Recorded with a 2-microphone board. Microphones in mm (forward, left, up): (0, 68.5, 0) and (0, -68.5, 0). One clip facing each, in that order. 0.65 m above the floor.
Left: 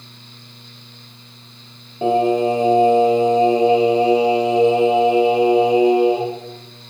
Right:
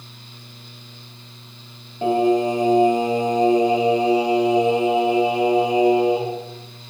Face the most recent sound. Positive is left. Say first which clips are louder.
# left 2 dB
turn(degrees=25)  # may be behind; listen again after turning